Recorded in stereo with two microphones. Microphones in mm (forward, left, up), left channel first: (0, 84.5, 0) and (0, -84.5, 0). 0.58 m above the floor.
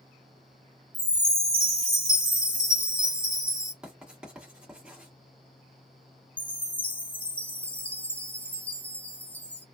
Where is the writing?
5° right (ahead or behind), 1.3 m.